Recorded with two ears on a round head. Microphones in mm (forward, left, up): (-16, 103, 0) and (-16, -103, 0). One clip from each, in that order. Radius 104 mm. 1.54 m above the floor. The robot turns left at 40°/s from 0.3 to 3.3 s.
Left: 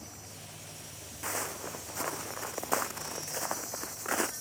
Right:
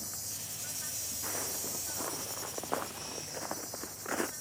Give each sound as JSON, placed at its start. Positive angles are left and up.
{"t": 0.0, "sound": "an insect", "azimuth_deg": -70}
{"t": 1.2, "sound": "footsteps", "side_deg": 40}